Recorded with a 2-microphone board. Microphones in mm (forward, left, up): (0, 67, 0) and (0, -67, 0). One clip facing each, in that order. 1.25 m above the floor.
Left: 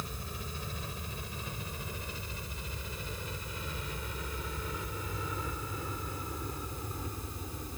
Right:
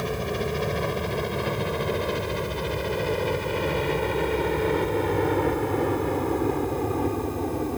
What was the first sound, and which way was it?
A helicopter, 80° right.